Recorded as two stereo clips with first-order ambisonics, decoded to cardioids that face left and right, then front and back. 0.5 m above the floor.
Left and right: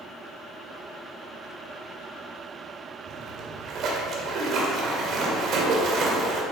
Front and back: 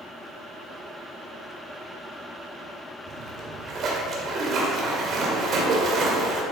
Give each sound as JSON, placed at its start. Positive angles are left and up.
{"t": 3.1, "sound": "a splash", "azimuth_deg": -130, "distance_m": 1.7}